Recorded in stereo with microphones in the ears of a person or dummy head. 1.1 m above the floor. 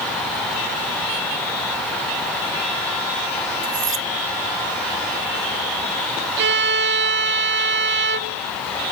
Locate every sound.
3.6 s cutlery clinking: 30° right (ahead or behind)
6.4 s a violin: 65° right (ahead or behind)